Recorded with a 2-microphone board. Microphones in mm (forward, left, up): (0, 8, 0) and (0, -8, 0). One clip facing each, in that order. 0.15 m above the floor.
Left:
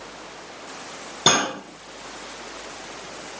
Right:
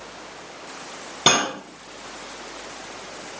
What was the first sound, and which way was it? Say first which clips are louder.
Cutlery clinking: even; 70° right (ahead or behind).